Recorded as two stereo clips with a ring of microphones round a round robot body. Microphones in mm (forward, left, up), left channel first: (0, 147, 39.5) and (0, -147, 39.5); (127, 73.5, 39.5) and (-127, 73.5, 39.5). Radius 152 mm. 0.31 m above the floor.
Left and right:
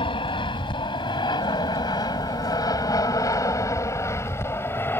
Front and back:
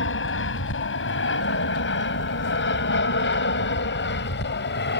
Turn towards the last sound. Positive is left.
turn(degrees=10)